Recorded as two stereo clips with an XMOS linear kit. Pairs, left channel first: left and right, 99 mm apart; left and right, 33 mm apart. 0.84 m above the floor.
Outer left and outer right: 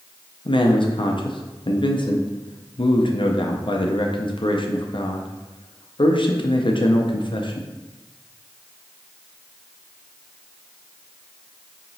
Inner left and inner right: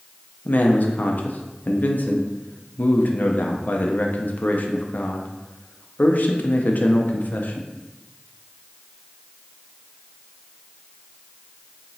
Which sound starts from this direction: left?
A man speaking, at 0.5 s.